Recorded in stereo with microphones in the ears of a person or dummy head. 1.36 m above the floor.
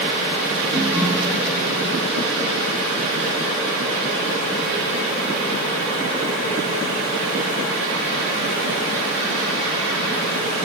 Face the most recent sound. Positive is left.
turn(degrees=-10)  # may be behind; listen again after turning